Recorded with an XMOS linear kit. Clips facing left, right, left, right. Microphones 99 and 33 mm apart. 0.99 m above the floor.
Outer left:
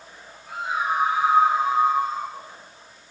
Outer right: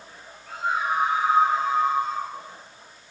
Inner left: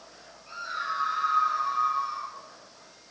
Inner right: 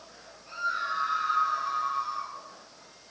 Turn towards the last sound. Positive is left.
turn(degrees=5)  # may be behind; listen again after turning